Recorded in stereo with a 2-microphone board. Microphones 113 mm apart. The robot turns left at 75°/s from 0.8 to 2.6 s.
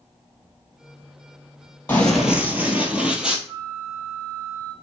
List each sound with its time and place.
1.9 s running footsteps: 20° left (ahead or behind), 1.1 m; by 3.4 s 5° right (ahead or behind), 1.1 m
3.5 s a flute: 25° right (ahead or behind), 1.5 m